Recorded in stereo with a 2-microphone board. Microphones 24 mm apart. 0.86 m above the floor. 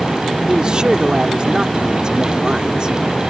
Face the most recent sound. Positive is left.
turn(degrees=-35)  # may be behind; listen again after turning